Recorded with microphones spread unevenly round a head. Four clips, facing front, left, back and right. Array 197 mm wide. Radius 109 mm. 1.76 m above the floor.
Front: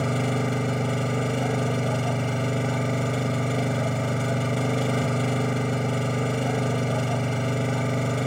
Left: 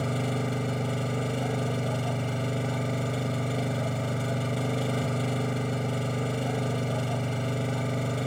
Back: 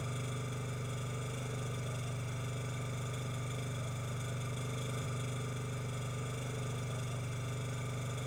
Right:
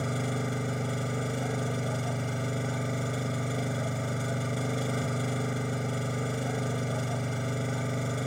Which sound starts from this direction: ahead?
An engine running, at 0.0 s.